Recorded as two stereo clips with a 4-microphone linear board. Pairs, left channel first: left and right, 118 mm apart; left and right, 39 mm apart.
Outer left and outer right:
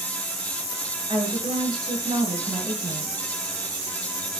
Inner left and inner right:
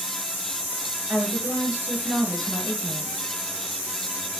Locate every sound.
1.1 s a woman speaking: 40° right (ahead or behind), 7 m